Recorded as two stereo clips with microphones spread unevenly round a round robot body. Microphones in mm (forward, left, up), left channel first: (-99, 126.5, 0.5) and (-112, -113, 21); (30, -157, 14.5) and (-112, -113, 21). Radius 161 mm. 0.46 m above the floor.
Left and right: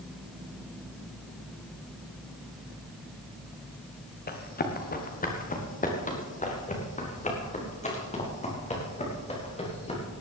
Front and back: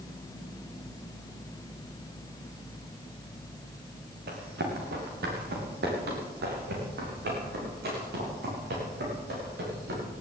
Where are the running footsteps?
140° left, 3 m; by 10.0 s 150° left, 7.5 m.